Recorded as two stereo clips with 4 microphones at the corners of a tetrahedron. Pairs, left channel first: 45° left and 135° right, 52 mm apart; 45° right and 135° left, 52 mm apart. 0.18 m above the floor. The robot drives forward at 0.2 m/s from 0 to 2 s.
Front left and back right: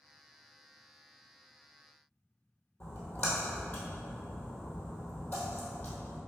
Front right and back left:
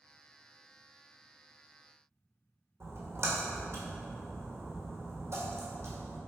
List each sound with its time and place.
2.8 s a splash: 100° left, 1.4 m